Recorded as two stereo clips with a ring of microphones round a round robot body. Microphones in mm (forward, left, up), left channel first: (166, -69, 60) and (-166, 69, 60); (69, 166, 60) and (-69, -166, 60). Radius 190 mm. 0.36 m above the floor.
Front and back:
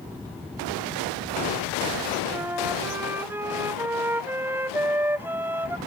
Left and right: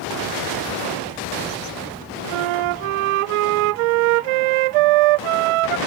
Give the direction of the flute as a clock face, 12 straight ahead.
4 o'clock.